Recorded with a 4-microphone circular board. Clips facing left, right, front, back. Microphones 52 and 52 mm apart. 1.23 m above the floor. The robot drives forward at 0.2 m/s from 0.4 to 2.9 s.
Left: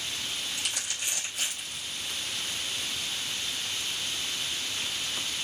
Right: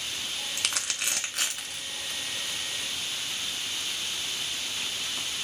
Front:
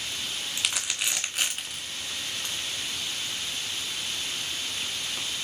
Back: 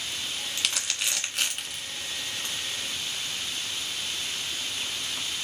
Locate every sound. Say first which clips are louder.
0.6 s crumpling: right 2 dB, front 1 dB; 80° right, 1.5 m; by 1.8 s 90° right, 1.5 m